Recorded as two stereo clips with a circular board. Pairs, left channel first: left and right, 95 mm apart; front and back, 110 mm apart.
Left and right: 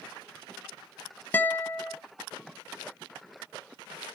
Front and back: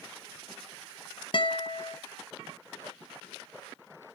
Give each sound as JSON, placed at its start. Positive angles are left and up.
{"t": 1.3, "sound": "a guitar", "azimuth_deg": 25, "distance_m": 0.7}